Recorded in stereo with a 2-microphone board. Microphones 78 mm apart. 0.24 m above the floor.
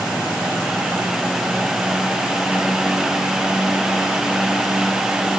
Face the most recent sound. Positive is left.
No sound to turn to.